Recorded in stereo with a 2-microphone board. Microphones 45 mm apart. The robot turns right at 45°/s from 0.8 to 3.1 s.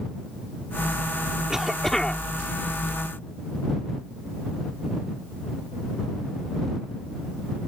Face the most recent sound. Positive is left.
turn(degrees=65)